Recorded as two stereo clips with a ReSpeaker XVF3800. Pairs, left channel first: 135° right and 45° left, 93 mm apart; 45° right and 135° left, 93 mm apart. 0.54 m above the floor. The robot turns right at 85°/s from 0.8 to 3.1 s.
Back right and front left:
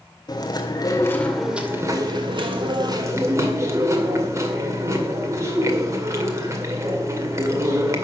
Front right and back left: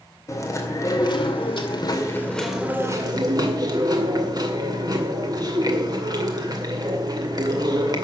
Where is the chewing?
100° right, 2 m; by 8.1 s 100° left, 2 m.